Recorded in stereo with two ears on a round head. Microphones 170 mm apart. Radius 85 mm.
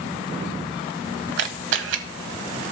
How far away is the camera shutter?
About 1.1 m.